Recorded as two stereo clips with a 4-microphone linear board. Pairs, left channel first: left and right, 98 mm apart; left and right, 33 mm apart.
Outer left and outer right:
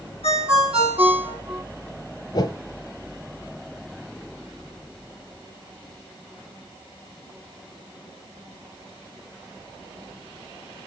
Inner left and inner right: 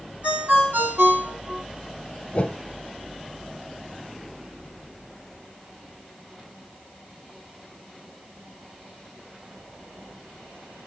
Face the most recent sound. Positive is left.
turn(degrees=45)  # may be behind; listen again after turning